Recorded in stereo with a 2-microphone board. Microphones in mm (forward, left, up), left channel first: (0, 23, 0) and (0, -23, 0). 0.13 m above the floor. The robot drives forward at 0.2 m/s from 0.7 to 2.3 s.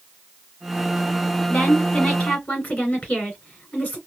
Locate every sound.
1.5 s a woman speaking: 35° left (ahead or behind), 2 m